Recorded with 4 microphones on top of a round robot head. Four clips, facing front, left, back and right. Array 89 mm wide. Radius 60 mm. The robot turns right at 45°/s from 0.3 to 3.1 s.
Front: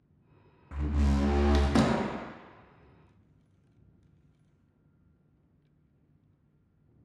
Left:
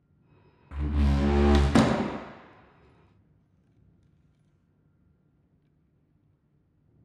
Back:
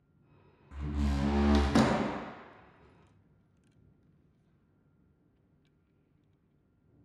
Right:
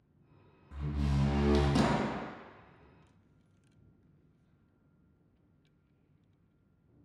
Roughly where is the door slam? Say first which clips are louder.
Left 6 dB, front 4 dB; ahead left.